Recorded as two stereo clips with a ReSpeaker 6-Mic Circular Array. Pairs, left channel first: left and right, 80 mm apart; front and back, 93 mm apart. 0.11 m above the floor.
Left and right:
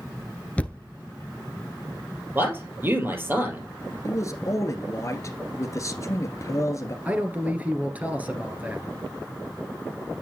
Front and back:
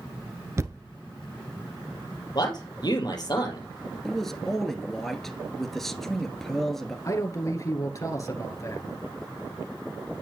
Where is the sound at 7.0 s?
30° right, 1.7 m.